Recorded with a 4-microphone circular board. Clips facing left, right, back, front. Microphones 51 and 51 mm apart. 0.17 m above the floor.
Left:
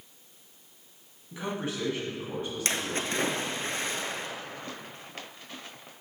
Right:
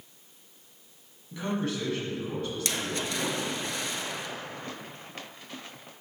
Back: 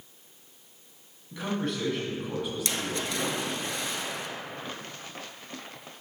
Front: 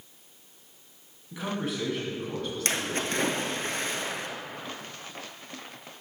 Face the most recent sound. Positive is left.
turn(degrees=40)